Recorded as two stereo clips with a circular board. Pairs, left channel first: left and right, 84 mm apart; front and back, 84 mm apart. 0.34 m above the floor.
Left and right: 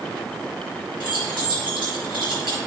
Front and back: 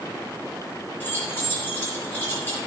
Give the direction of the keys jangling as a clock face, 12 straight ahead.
2 o'clock.